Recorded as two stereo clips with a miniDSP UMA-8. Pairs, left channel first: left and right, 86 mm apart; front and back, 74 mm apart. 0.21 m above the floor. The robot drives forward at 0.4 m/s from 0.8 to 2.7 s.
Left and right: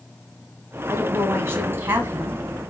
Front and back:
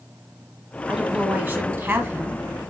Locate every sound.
0.9 s a woman speaking: 115° right, 1.2 m; by 2.4 s 145° right, 1.5 m